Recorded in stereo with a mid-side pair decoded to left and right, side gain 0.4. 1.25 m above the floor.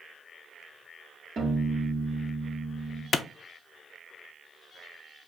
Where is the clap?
50° left, 0.6 m.